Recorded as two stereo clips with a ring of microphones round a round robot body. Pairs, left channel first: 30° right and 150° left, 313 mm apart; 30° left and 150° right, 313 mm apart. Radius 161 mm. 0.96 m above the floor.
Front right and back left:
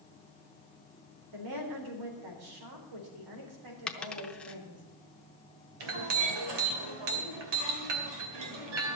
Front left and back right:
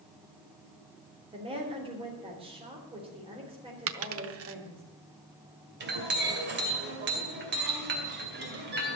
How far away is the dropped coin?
About 0.7 m.